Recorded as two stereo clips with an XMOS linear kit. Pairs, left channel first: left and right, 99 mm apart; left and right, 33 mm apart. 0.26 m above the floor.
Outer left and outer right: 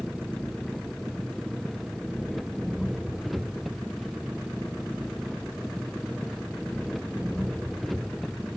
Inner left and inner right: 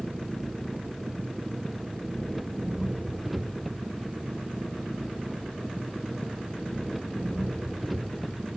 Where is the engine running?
Centre (ahead or behind).